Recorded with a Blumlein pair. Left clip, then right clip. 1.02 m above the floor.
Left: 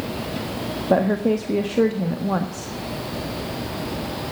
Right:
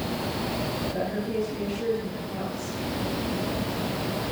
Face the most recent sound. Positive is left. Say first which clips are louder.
# left 9 dB
turn(degrees=40)